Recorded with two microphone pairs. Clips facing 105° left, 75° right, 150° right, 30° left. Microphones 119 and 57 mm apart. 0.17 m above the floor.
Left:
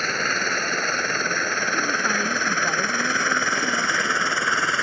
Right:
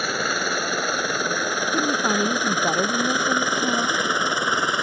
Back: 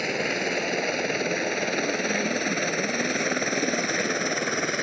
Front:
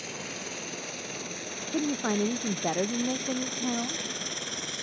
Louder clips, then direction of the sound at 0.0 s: Right 1 dB, back 12 dB; 155° right.